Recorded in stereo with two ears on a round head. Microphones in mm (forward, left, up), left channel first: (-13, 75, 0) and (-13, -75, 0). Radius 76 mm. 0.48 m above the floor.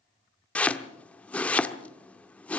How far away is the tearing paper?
I don't hear tearing paper.